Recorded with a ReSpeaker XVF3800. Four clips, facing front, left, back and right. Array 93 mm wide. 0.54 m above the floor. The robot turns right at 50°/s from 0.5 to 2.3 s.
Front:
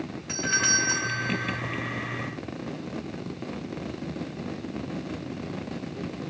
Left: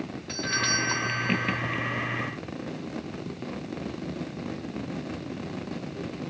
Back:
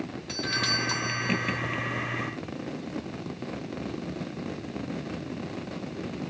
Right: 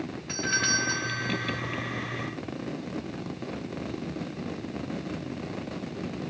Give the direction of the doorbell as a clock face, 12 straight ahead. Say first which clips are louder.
Right 1 dB, front 4 dB; 1 o'clock.